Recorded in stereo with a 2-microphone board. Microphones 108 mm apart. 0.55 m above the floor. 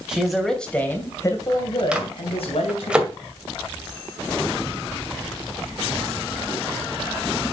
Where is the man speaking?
5° right (ahead or behind), 3 m; by 2.9 s 70° left (ahead or behind), 3.5 m.